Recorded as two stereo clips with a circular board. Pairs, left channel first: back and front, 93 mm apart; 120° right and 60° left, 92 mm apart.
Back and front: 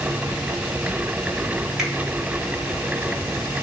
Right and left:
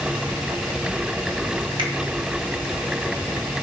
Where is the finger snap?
85° left, 2.5 m.